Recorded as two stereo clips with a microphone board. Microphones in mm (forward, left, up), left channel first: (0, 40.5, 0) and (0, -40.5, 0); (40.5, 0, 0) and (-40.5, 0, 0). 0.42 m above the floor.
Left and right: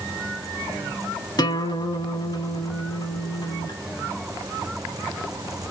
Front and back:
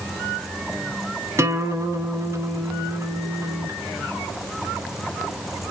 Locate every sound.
1.4 s a guitar: 125° left, 0.9 m